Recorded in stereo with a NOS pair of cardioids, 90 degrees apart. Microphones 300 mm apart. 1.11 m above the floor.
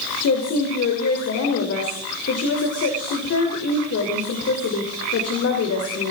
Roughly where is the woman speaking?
Ahead left.